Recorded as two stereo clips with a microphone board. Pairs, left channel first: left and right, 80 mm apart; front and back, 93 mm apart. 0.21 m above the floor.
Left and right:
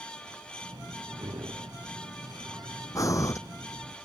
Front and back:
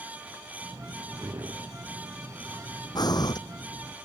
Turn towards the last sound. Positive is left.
turn(degrees=40)